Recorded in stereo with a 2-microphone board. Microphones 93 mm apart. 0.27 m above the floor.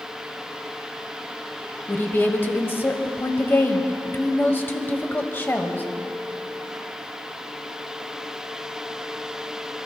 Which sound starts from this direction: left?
A woman speaking, at 1.9 s.